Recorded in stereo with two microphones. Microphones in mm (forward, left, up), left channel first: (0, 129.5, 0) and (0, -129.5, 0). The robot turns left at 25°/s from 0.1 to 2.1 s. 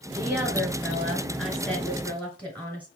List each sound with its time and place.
0.1 s a woman speaking: 10° right (ahead or behind), 1.5 m; by 2.9 s 5° left (ahead or behind), 1.5 m